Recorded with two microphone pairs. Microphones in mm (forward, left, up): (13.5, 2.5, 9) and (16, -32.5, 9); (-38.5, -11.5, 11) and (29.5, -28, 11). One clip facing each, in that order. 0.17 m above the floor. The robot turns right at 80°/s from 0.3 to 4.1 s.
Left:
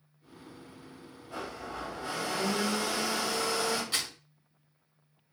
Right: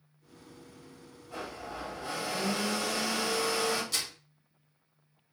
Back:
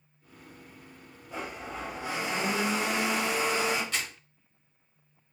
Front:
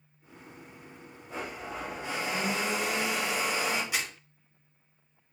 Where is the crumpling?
50° left, 0.7 m; by 4.1 s 65° left, 0.7 m.